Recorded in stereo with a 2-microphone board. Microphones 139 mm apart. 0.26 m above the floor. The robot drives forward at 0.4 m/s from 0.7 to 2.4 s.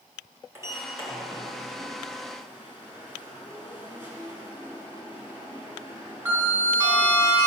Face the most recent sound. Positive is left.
turn(degrees=-15)  # may be behind; listen again after turning